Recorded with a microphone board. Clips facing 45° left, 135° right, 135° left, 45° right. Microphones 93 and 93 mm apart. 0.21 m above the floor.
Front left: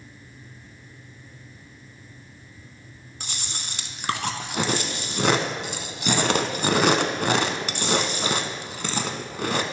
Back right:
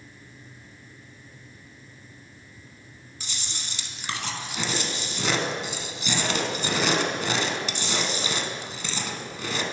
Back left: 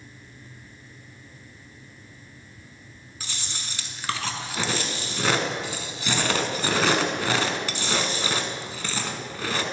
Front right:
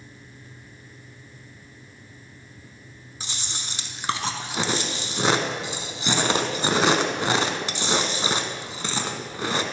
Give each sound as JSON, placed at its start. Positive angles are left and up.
{"t": 3.2, "sound": "chewing", "azimuth_deg": 20, "distance_m": 0.6}